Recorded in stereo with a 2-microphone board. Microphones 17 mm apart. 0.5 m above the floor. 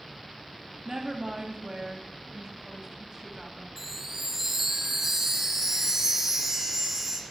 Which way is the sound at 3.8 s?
30° right (ahead or behind).